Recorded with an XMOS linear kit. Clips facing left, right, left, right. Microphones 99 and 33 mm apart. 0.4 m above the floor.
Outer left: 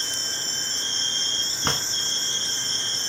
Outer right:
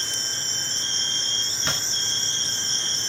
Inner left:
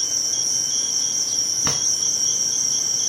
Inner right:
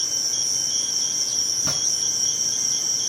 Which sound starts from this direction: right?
An insect, at 0.0 s.